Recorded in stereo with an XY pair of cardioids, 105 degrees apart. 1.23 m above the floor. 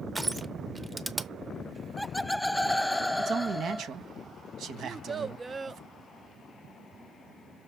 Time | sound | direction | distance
0.1 | crushing | 15° right | 0.8 m
1.8 | laughter | 10° left | 0.6 m
3.2 | a man speaking | 65° right | 1.3 m
4.8 | a child speaking | 25° right | 0.6 m